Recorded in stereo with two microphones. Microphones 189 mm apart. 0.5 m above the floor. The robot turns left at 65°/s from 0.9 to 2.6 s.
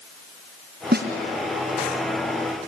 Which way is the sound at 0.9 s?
60° right (ahead or behind).